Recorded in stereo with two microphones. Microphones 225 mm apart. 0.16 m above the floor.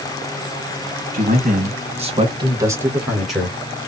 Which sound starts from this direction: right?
A man speaking, at 1.1 s.